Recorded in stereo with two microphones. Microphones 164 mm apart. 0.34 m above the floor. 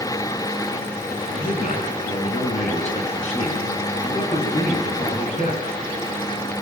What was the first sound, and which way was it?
A man speaking, 45° left (ahead or behind).